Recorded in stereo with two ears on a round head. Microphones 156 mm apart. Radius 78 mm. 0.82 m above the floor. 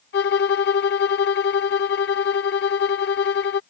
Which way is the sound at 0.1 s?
65° left (ahead or behind).